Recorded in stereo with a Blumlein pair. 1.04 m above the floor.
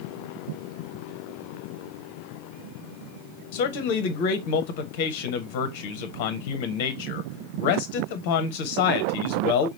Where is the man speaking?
45° left, 0.8 m.